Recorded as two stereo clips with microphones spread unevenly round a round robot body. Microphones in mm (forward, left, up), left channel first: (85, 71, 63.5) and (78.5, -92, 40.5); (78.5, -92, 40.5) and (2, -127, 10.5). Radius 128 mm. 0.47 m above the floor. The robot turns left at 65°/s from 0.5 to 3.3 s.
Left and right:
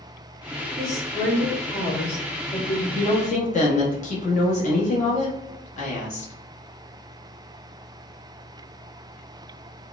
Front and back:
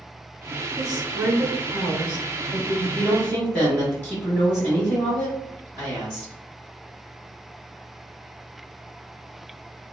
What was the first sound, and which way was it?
A woman speaking, 110° right.